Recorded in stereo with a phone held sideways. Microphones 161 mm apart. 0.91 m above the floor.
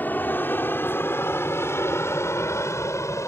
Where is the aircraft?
10° left (ahead or behind); by 3.3 s 20° left (ahead or behind).